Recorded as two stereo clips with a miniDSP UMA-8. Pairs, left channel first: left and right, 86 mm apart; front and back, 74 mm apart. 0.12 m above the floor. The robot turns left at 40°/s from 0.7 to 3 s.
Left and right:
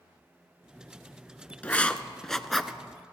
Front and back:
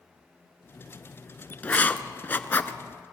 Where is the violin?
No violin in this recording.